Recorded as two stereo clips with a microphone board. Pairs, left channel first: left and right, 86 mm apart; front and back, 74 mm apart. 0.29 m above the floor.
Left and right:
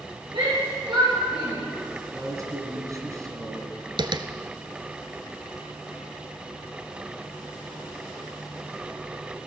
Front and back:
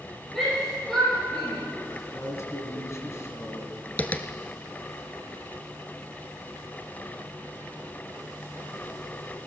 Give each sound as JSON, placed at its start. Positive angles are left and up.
{"t": 0.3, "sound": "a shout", "azimuth_deg": -80, "distance_m": 7.0}
{"t": 2.1, "sound": "a man speaking", "azimuth_deg": -45, "distance_m": 2.5}
{"t": 4.0, "sound": "tapping", "azimuth_deg": -70, "distance_m": 0.8}